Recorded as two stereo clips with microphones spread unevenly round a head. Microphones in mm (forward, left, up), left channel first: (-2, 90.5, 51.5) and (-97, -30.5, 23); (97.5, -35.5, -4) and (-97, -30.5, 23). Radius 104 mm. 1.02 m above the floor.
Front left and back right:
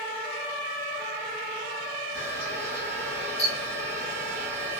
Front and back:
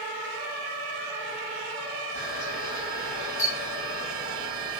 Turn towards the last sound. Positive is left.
turn(degrees=50)